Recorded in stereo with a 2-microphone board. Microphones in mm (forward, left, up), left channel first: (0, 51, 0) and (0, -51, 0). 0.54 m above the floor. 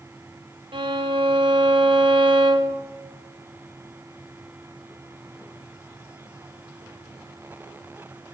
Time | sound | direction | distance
0.7 | a violin | 50° right (ahead or behind) | 0.9 m